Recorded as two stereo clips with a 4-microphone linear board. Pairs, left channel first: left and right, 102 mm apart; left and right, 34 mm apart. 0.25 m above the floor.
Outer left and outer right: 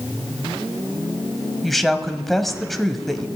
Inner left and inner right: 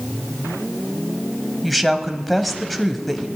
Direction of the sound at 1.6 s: Centre (ahead or behind).